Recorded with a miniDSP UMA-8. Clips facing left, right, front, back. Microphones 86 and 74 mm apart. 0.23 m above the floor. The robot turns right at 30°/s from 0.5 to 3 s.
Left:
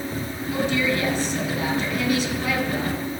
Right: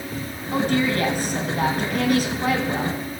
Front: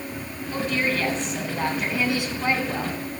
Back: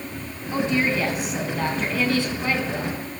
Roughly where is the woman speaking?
Behind right.